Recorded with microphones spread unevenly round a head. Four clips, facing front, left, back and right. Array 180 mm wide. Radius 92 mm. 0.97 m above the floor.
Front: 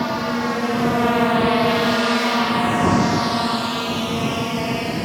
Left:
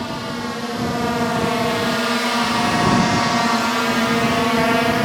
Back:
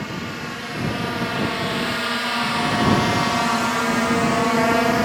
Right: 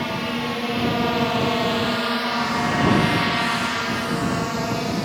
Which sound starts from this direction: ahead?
A drone, at 0.0 s.